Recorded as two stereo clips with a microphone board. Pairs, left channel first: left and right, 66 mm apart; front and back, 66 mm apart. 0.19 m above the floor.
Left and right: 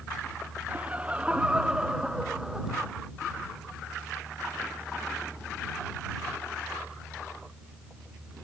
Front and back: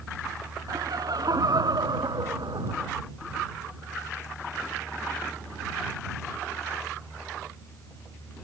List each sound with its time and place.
0.7 s laughter: 160° right; by 2.9 s 175° right